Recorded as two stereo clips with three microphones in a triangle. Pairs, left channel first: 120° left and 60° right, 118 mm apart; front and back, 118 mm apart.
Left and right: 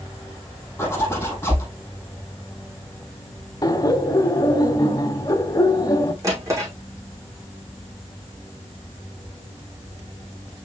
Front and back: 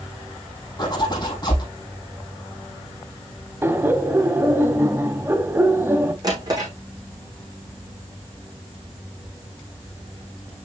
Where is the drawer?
125° right, 6 m.